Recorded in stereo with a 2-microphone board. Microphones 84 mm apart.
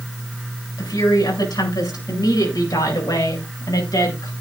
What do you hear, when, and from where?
0.8 s a woman speaking: 50° left (ahead or behind), 8 m